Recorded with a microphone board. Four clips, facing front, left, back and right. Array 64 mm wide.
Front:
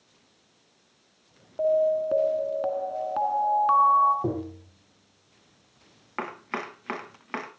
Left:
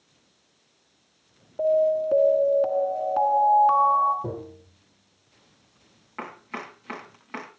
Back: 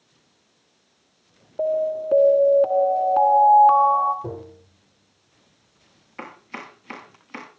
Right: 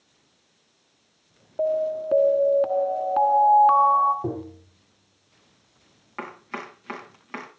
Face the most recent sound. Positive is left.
turn(degrees=-10)